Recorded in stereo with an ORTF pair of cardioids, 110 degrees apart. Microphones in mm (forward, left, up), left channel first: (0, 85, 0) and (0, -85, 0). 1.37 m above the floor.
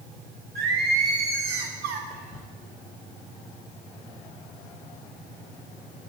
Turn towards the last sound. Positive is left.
turn(degrees=55)